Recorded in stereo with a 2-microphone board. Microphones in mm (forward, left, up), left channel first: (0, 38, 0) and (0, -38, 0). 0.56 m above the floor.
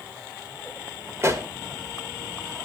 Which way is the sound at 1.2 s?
35° right (ahead or behind).